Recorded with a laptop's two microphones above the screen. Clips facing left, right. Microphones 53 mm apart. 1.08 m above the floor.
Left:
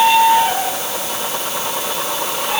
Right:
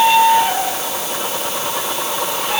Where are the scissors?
I don't hear scissors.